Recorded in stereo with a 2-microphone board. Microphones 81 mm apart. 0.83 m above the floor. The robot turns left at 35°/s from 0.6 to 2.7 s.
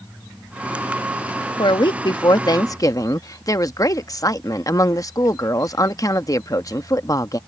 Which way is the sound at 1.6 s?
85° left.